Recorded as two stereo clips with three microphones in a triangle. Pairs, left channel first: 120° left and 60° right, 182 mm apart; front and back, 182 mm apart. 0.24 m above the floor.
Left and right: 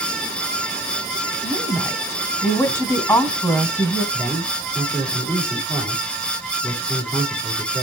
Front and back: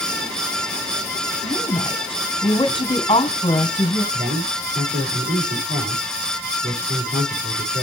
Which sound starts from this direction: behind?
A man speaking, at 4.1 s.